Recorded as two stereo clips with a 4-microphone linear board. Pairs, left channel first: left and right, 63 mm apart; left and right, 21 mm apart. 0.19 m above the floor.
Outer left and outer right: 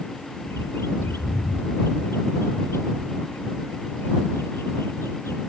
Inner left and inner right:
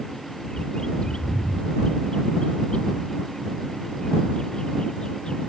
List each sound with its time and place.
0.5 s a bird: 40° left (ahead or behind)